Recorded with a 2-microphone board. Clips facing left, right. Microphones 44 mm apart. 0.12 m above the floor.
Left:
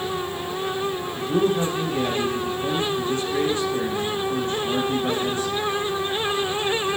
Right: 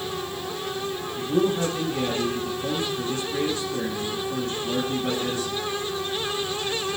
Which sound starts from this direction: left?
A man speaking, at 1.2 s.